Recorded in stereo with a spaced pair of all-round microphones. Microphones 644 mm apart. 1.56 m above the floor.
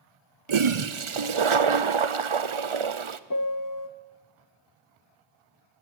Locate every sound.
0.5 s a toilet flushing: 50° right (ahead or behind), 0.8 m
3.3 s a piano: 30° left (ahead or behind), 0.8 m